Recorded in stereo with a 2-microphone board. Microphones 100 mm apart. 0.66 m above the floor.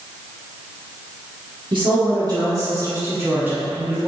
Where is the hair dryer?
No hair dryer in this recording.